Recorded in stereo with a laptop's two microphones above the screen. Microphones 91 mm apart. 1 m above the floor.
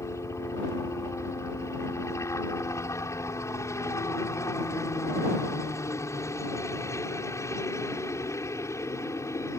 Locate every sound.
0.0 s a helicopter: 35° left (ahead or behind)